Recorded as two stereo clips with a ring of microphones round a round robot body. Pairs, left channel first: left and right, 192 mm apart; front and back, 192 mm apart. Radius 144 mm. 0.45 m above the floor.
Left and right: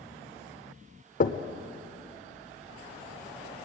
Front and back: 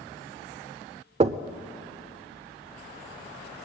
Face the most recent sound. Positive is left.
turn(degrees=130)